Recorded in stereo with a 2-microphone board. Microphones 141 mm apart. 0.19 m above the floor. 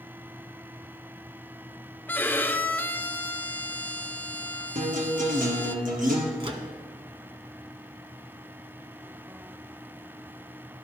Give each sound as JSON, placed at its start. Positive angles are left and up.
{"t": 2.1, "sound": "a violin", "side_deg": 15, "distance_m": 0.5}
{"t": 4.8, "sound": "a guitar", "side_deg": -75, "distance_m": 2.5}
{"t": 6.4, "sound": "a microwave", "side_deg": -40, "distance_m": 1.2}